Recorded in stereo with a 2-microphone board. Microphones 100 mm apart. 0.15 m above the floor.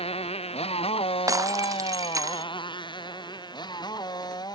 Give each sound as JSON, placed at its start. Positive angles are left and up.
{"t": 0.0, "sound": "a motorcycle", "side_deg": 80}
{"t": 1.3, "sound": "breaking glass", "side_deg": -35}